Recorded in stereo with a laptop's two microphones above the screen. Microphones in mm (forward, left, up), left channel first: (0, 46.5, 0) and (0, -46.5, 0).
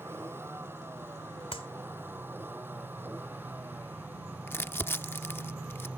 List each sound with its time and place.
0.0 s a vehicle: 25° right (ahead or behind); by 6.0 s 15° right (ahead or behind)
1.5 s a clap: 85° left
4.5 s crumpling: 25° left (ahead or behind)